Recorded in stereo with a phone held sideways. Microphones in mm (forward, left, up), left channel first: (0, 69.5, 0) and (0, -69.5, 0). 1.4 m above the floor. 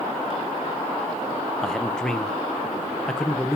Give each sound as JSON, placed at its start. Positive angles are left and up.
{"t": 1.6, "sound": "a man speaking", "side_deg": 5, "distance_m": 0.8}